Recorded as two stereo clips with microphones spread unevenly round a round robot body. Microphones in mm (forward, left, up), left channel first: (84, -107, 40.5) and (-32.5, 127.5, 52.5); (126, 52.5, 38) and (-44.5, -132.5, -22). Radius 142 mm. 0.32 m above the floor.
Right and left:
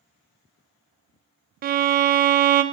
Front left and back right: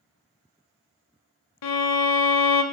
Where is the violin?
65° left, 0.6 m.